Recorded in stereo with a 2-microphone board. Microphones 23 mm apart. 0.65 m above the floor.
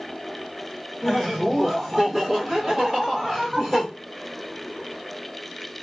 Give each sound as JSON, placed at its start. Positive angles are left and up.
{"t": 1.0, "sound": "laughter", "side_deg": 0, "distance_m": 1.1}